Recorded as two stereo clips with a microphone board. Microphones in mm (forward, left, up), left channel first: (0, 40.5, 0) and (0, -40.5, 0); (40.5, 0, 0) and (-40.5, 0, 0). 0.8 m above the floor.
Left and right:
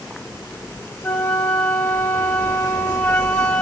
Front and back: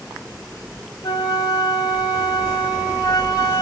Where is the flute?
30° left, 1.1 m.